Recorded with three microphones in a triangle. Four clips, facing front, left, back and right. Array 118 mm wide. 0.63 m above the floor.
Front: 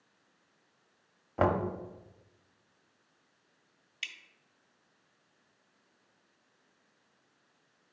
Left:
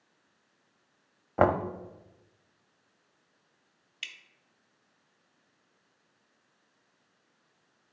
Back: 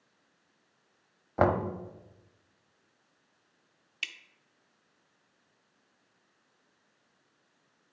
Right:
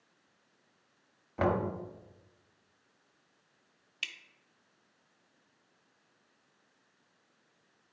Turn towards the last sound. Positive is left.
turn(degrees=-150)